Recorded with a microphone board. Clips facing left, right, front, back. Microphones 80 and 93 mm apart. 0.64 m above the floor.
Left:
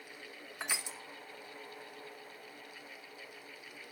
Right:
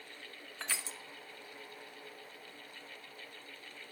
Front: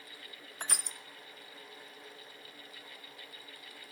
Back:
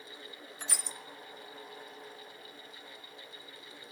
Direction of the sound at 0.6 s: 20° left.